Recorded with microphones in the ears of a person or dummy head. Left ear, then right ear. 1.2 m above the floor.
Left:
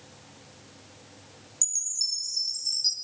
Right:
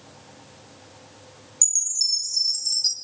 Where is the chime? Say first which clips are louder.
Right 6 dB; 15° right (ahead or behind), 0.6 m.